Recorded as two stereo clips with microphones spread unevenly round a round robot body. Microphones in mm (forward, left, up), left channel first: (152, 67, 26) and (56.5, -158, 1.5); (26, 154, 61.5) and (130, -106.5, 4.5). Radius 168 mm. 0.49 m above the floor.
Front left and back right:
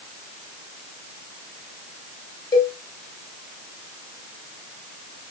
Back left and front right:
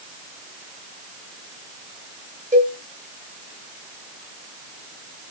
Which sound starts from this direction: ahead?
A cowbell, at 2.5 s.